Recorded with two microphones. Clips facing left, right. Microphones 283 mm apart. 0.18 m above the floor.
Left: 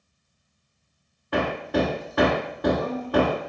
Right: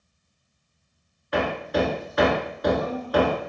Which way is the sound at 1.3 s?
60° left (ahead or behind).